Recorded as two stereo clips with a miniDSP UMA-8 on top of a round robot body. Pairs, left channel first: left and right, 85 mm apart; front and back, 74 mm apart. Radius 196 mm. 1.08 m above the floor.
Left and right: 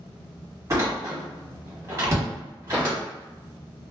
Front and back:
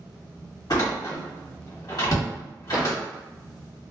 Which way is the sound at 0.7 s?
35° right.